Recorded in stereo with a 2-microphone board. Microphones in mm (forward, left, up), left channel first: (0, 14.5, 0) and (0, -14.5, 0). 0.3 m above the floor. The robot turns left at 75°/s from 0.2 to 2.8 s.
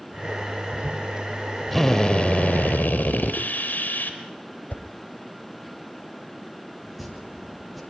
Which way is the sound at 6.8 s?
Centre (ahead or behind).